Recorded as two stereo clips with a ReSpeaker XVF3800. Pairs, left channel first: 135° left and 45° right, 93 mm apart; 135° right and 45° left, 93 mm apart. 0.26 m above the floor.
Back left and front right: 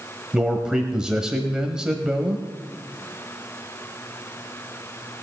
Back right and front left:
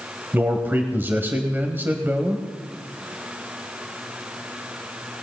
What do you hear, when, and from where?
0.3 s a man speaking: 25° left, 1.2 m